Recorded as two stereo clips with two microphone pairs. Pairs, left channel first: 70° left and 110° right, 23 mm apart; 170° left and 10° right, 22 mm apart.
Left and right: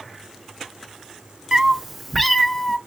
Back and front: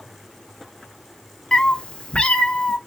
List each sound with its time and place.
1.5 s a cat meowing: 150° right, 0.5 m; by 2.8 s 150° left, 0.9 m